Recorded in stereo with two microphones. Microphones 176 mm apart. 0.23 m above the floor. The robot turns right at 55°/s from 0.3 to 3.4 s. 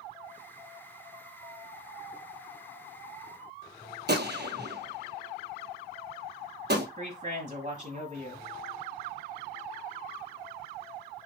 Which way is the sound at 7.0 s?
40° right (ahead or behind).